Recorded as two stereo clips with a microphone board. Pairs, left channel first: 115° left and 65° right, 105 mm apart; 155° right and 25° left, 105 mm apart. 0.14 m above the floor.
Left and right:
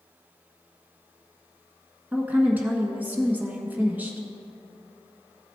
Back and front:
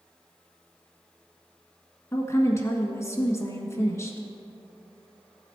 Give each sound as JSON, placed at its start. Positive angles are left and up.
{"t": 2.1, "sound": "a woman speaking", "azimuth_deg": -125, "distance_m": 1.5}